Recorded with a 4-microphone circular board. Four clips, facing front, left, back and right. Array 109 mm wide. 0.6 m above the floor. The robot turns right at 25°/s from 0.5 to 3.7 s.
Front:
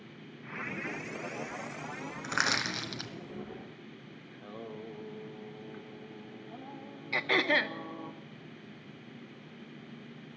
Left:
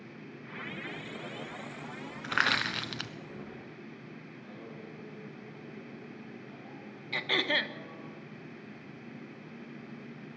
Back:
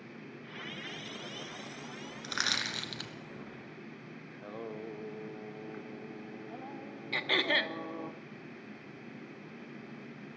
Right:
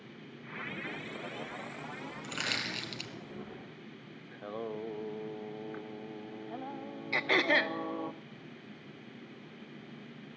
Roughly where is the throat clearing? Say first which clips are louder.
Right 3 dB, front 3 dB; ahead right.